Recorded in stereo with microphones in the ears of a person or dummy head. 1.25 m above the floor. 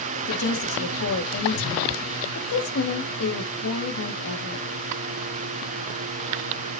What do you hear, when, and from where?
0.3 s a woman speaking: 80° left, 2 m